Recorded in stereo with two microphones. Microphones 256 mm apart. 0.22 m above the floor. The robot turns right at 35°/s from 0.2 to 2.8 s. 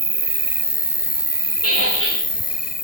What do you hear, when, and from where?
0.0 s an insect: 55° right, 0.7 m; by 2.8 s 35° left, 0.7 m
1.6 s a squeak: 65° left (ahead or behind), 9.5 m; by 2.2 s 45° left (ahead or behind), 9.5 m